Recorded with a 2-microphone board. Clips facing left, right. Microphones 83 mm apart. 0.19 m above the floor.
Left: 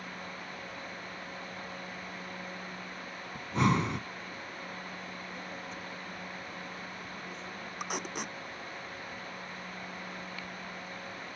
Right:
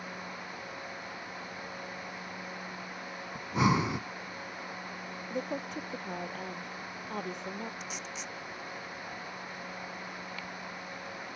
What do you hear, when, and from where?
3.4 s breathing: 5° right (ahead or behind)
5.3 s a woman speaking: 65° right (ahead or behind)
7.8 s tape being pulled: 60° left (ahead or behind)